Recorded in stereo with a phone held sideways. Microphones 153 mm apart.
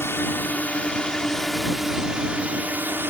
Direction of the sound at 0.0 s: 15° left (ahead or behind).